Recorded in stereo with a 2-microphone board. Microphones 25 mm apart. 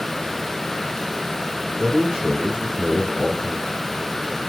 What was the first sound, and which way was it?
A man speaking, 35° right (ahead or behind).